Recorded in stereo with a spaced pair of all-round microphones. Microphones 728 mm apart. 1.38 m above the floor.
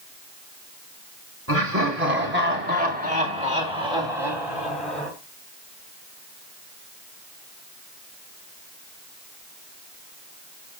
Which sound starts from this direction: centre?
Laughter, at 1.5 s.